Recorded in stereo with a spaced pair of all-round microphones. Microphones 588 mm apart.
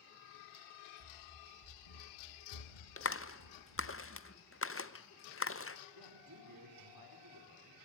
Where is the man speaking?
35° right (ahead or behind), 4.5 m.